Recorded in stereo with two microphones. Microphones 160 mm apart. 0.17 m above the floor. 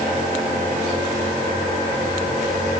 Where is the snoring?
No snoring in this recording.